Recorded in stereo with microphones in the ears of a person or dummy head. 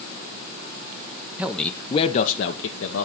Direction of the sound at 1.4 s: 5° right (ahead or behind).